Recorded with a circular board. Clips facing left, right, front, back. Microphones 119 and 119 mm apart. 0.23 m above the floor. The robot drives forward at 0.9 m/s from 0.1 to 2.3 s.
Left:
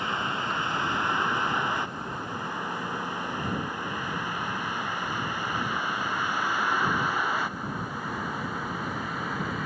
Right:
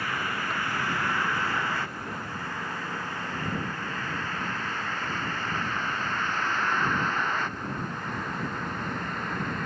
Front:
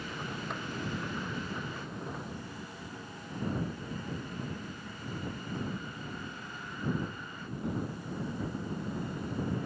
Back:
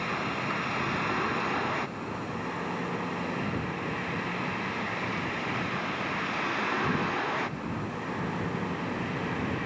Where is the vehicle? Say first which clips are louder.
Left 1 dB, back 8 dB; 160° left; by 9.7 s 175° left.